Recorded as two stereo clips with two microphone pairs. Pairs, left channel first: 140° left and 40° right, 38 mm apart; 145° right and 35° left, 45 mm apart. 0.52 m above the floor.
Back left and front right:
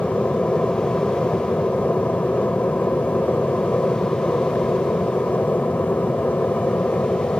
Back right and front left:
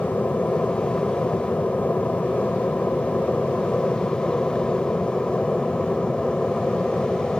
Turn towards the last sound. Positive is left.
turn(degrees=150)